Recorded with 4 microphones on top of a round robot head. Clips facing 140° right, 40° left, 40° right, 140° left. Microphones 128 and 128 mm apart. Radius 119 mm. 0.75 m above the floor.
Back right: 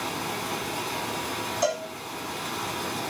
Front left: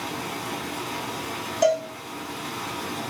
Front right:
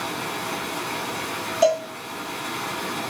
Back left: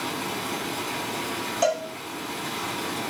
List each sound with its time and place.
0.0 s running water: 5° right, 1.4 m
1.6 s a cowbell: 25° left, 1.7 m